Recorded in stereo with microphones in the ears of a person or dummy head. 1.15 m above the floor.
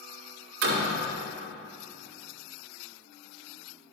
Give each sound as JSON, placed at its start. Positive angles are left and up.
{"t": 0.6, "sound": "a door slam", "side_deg": -85, "distance_m": 2.5}